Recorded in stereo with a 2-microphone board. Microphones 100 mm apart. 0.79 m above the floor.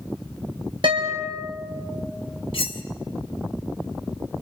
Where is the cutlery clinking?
70° left (ahead or behind), 1.5 m.